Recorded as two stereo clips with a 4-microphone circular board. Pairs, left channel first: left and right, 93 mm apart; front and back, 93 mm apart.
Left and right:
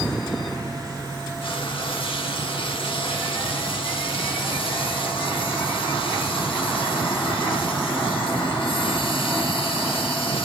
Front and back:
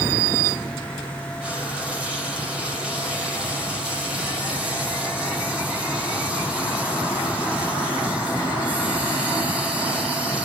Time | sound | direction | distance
1.4 | frying | 100° left | 4.5 m